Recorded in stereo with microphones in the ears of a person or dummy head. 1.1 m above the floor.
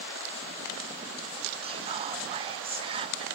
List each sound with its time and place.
1.6 s whispering: 25° right (ahead or behind), 0.7 m